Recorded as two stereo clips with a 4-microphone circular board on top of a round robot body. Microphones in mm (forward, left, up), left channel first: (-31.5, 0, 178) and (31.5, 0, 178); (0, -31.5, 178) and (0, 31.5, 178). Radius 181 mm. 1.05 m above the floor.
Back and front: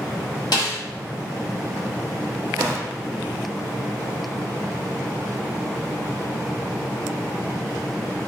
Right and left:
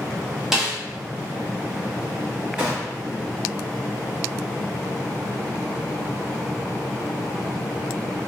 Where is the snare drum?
175° left, 0.7 m.